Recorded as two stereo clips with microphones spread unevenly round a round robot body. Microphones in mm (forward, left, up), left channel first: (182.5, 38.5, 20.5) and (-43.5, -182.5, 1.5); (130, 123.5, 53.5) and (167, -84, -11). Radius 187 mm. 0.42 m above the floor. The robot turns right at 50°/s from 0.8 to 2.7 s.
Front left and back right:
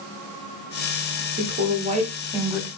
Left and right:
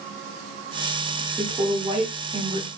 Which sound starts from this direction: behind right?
A woman speaking, at 1.4 s.